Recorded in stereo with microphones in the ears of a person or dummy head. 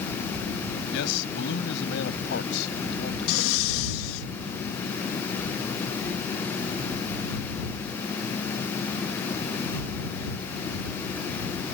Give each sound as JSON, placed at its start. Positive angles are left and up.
{"t": 0.9, "sound": "a man speaking", "side_deg": 80}
{"t": 3.3, "sound": "breathing", "side_deg": 75}